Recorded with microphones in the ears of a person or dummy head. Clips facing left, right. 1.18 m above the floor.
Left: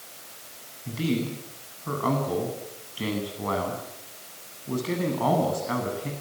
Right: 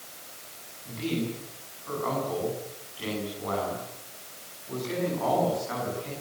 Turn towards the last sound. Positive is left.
turn(degrees=50)  # may be behind; listen again after turning